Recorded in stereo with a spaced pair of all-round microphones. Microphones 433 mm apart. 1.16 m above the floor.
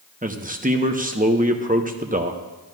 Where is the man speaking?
20° right (ahead or behind), 0.9 m.